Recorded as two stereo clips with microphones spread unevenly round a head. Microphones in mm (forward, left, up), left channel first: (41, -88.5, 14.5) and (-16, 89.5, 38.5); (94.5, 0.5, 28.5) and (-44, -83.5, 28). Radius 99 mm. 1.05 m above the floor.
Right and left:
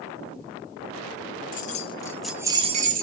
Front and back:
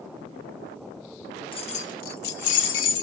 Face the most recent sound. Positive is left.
turn(degrees=65)